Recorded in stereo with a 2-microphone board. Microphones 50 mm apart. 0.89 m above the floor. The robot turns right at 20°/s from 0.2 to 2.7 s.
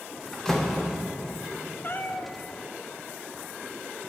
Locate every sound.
0.3 s a door slam: 10° left (ahead or behind), 1.2 m; by 1.0 s centre (ahead or behind), 1.2 m
1.8 s a cat meowing: 45° left (ahead or behind), 0.6 m